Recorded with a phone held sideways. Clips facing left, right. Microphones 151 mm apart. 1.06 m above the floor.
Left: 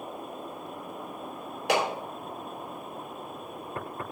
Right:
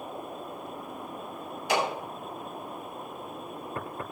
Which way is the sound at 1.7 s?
75° left (ahead or behind).